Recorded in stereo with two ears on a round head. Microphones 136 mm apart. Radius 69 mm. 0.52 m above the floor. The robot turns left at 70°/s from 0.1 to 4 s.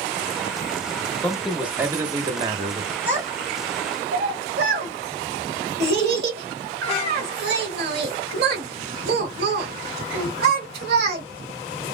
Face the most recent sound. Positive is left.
turn(degrees=-70)  # may be behind; listen again after turning